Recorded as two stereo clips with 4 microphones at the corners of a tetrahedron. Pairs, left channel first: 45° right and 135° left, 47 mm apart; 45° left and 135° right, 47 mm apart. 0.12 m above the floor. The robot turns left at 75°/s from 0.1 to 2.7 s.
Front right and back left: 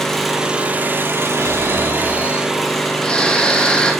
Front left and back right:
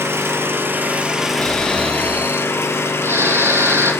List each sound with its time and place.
0.0 s an engine running: 125° right, 3 m; by 4.0 s 40° left, 3 m
1.3 s snoring: 15° right, 4 m; by 3.9 s 115° right, 4 m